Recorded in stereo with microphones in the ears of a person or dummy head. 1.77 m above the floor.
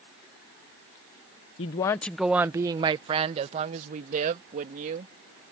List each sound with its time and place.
1.6 s a woman speaking: 30° left (ahead or behind); by 5.1 s 45° right (ahead or behind)